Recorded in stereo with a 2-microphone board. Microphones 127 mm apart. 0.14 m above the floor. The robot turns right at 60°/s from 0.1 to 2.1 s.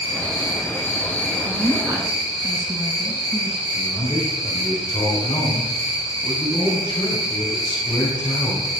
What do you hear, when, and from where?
0.0 s an insect: 160° right, 2 m; by 8.8 s 40° right, 2 m
1.4 s a woman speaking: 25° right (ahead or behind), 1.3 m; by 3.6 s 15° right (ahead or behind), 1.3 m
3.7 s a man speaking: 35° left (ahead or behind), 5 m